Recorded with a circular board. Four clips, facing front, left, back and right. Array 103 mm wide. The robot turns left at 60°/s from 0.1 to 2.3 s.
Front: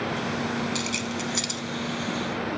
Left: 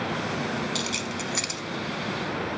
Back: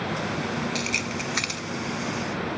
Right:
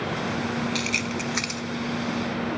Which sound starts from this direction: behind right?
Keys jangling, at 0.8 s.